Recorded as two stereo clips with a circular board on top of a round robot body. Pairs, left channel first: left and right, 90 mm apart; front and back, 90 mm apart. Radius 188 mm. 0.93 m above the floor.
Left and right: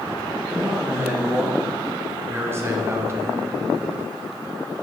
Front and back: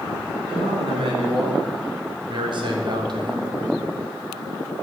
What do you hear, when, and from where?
0.5 s a man speaking: 155° right, 4 m; by 3.5 s 150° right, 1.6 m